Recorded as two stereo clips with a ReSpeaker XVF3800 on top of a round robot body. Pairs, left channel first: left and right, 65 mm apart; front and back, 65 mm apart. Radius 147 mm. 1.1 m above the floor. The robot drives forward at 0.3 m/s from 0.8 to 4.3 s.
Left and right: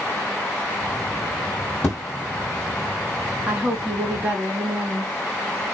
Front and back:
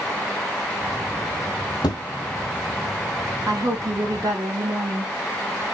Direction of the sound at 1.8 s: 25° left.